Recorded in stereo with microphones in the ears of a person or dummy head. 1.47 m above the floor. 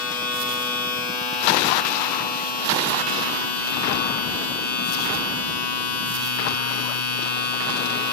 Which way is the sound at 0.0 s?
10° left (ahead or behind).